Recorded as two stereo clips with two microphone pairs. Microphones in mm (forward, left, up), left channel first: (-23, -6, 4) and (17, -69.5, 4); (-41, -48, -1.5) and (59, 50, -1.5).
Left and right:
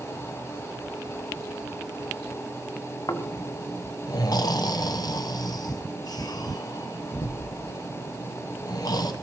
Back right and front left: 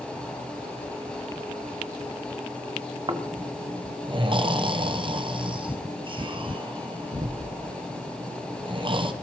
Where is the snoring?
95° left, 0.9 m.